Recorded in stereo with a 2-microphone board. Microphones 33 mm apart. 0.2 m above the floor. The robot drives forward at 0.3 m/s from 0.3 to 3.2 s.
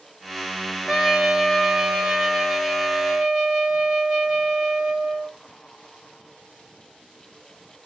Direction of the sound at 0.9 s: 10° right (ahead or behind).